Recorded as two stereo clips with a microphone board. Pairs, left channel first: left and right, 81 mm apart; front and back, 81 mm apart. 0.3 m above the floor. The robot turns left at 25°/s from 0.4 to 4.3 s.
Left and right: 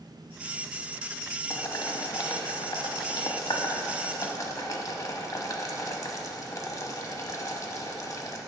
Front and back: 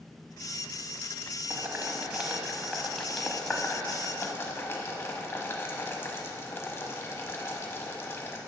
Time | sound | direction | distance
1.5 | boiling | 125° left | 0.8 m